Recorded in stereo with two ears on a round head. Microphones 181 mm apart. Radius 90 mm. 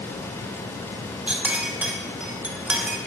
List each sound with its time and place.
1.3 s a clink: 5° right (ahead or behind), 0.5 m